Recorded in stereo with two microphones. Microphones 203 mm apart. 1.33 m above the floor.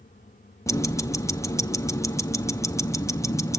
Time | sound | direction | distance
0.7 | ticking | 15° left (ahead or behind) | 0.6 m